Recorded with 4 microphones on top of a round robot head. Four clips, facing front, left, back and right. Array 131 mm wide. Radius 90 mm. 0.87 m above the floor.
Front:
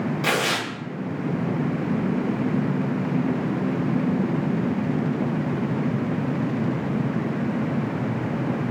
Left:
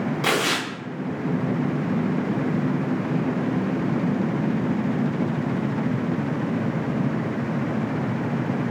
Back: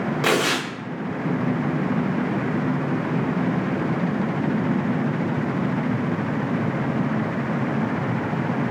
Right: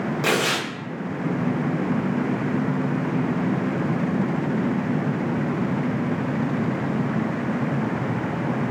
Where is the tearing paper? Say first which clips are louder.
Right 2 dB, back 4 dB; 170° right, 0.6 m.